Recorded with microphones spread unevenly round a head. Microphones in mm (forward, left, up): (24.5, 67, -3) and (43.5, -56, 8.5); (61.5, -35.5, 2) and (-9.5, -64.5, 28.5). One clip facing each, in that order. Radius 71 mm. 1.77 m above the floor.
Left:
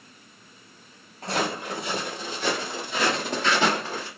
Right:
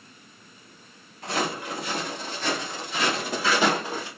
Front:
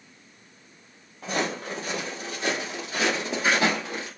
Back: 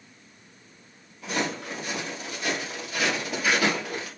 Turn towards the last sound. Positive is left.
turn(degrees=-50)